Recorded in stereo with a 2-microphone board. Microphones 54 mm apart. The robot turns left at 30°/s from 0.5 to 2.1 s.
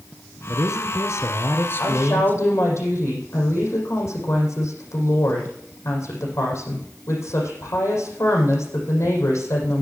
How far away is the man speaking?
About 2.5 m.